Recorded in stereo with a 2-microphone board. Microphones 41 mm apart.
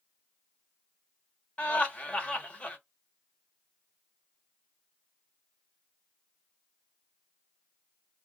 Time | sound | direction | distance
1.6 | laughter | 35° left (ahead or behind) | 1.0 m